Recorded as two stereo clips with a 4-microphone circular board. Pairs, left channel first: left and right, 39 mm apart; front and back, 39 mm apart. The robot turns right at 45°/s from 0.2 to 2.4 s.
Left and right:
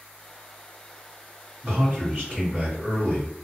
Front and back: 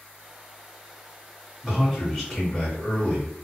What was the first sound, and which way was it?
A man speaking, 100° right.